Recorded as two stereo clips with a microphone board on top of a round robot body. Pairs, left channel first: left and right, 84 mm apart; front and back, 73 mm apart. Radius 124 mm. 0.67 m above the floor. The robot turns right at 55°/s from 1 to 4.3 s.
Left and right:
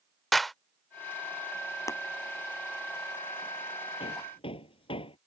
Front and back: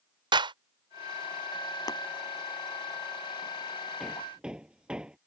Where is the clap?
Straight behind.